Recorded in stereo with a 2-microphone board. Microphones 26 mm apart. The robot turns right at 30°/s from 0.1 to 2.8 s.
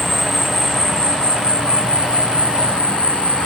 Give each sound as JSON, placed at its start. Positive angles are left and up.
{"t": 0.0, "sound": "an insect", "azimuth_deg": 0, "distance_m": 0.8}